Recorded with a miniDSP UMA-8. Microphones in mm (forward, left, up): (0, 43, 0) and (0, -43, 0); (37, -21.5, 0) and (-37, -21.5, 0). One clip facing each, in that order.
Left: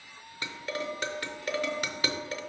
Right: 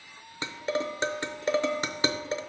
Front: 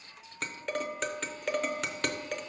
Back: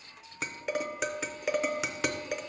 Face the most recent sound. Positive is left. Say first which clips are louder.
# right 5 dB, back 1 dB
turn(degrees=-105)